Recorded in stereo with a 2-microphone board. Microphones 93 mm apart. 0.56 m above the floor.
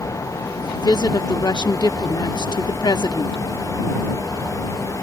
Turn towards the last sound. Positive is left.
turn(degrees=45)  # may be behind; listen again after turning